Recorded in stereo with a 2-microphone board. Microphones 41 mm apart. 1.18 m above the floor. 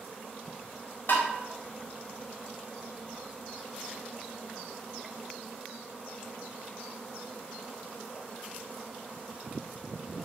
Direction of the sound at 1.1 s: 50° left (ahead or behind).